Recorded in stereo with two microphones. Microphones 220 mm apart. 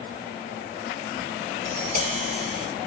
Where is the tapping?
30° right (ahead or behind), 2 m.